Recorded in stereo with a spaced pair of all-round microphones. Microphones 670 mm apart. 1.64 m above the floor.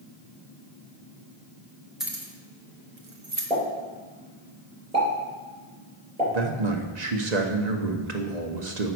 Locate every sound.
2.0 s keys jangling: centre (ahead or behind), 1.5 m; by 3.5 s 50° right (ahead or behind), 1.6 m
3.5 s a pop: 10° left (ahead or behind), 5 m
6.3 s a man speaking: 80° right, 1.3 m